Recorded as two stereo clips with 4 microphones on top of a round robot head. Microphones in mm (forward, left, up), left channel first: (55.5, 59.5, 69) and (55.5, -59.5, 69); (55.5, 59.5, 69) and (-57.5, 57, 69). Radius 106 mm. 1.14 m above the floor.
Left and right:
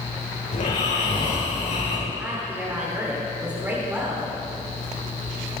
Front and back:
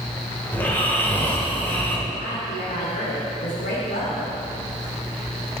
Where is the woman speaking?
15° right, 3 m.